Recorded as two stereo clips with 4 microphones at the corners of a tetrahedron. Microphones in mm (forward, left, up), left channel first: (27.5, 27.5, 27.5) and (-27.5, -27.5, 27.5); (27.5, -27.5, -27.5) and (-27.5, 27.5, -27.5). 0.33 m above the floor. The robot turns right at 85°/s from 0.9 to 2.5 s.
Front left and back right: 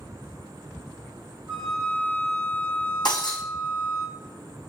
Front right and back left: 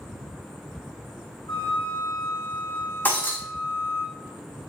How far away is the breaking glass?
About 2.5 m.